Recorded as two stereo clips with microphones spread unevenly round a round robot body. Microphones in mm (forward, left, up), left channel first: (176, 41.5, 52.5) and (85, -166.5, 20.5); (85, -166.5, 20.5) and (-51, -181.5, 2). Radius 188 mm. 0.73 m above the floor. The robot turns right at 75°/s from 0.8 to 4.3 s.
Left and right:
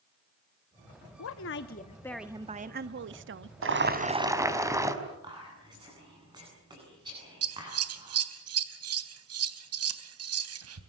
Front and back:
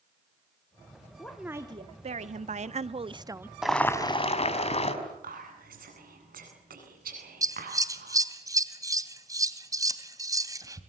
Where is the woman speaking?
85° left, 0.9 m; by 3.5 s 100° right, 0.9 m.